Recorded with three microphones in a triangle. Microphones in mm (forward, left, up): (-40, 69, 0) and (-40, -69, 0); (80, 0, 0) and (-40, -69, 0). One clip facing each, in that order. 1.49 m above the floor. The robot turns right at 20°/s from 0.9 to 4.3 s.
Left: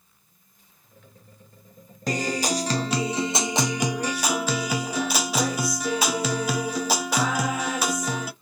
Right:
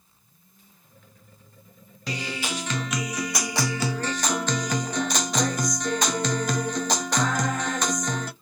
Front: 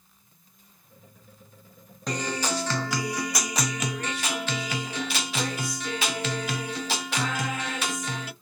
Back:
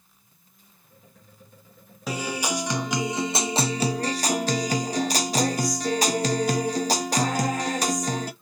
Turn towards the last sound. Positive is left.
turn(degrees=175)